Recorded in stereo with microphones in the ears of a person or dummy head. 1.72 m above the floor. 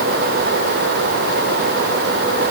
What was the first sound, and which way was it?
Only background noise.